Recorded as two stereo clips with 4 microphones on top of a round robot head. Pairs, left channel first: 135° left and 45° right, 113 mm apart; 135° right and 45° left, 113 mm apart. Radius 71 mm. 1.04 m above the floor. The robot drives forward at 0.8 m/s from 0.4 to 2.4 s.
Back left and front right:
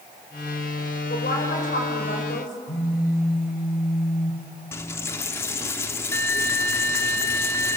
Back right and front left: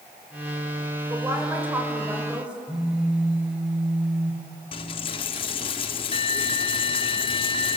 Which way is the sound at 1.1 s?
115° left.